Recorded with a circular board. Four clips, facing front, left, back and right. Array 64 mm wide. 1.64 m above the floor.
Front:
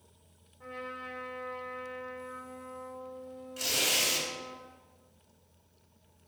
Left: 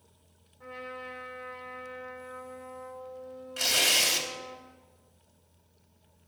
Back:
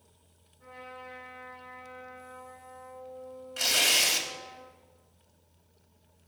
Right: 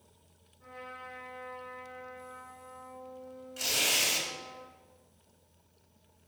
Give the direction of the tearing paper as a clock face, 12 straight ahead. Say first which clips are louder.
Left 4 dB, back 4 dB; 7 o'clock.